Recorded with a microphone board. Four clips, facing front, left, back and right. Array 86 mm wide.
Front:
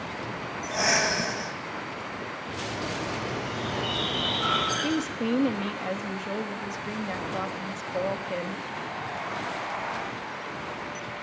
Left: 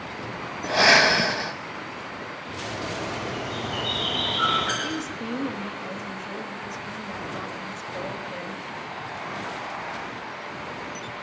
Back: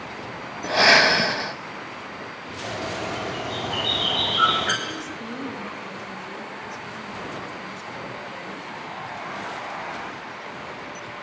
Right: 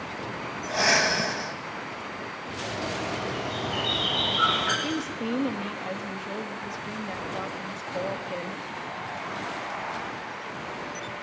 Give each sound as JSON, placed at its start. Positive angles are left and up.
{"t": 0.6, "sound": "breathing", "azimuth_deg": 145, "distance_m": 0.9}
{"t": 2.6, "sound": "a bird", "azimuth_deg": -170, "distance_m": 9.0}
{"t": 4.8, "sound": "a woman speaking", "azimuth_deg": -20, "distance_m": 2.0}